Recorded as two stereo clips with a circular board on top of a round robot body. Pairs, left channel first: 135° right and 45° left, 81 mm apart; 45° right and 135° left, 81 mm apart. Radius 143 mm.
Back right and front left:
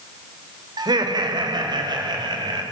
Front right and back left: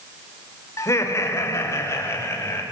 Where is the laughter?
10° left, 4 m; by 2.6 s 15° left, 6.5 m.